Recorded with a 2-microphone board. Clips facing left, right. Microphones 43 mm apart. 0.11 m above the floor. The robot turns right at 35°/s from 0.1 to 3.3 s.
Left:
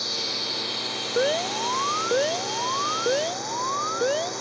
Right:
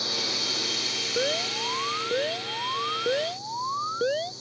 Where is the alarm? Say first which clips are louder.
Left 5 dB; 20° left (ahead or behind); by 4.3 s 10° left (ahead or behind).